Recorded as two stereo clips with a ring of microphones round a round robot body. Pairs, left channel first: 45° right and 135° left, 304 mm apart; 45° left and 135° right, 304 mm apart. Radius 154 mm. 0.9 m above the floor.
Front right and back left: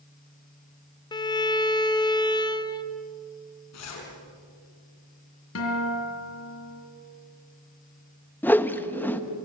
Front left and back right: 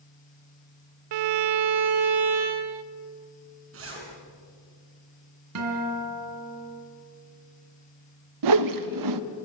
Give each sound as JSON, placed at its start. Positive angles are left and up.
{"t": 1.1, "sound": "a violin", "azimuth_deg": -120, "distance_m": 0.6}
{"t": 3.7, "sound": "a zipper", "azimuth_deg": -85, "distance_m": 5.5}
{"t": 5.5, "sound": "a guitar", "azimuth_deg": -95, "distance_m": 3.5}
{"t": 8.4, "sound": "a whoosh", "azimuth_deg": -130, "distance_m": 0.8}